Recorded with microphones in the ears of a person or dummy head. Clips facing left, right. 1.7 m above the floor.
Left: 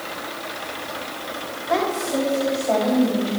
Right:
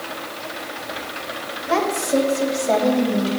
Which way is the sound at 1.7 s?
55° right (ahead or behind).